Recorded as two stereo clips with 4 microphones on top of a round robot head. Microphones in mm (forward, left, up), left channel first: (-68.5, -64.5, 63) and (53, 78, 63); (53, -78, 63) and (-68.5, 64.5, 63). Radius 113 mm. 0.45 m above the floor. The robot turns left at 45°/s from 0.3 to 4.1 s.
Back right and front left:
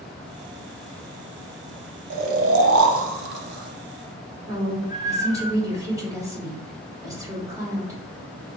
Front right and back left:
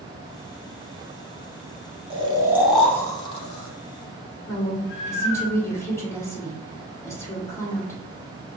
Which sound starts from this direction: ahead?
A woman speaking, at 4.5 s.